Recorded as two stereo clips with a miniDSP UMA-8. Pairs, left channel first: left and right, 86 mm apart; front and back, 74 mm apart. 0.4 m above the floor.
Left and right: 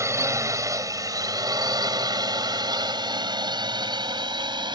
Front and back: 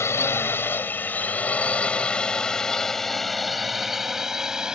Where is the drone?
45° right; by 4.8 s 100° right.